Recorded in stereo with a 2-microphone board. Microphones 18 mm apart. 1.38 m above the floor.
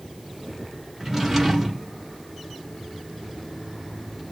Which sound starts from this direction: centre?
A drawer, at 1.0 s.